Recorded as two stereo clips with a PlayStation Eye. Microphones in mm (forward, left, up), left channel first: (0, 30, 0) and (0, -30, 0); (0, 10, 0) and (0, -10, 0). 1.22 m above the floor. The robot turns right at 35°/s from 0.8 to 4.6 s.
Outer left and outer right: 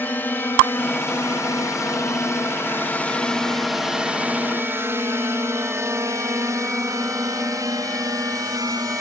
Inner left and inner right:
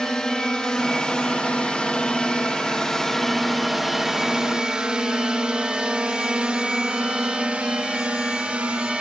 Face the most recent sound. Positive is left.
turn(degrees=-65)  # may be behind; listen again after turning